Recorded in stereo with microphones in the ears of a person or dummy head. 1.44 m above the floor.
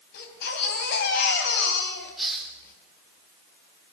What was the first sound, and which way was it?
A baby crying, 60° left (ahead or behind).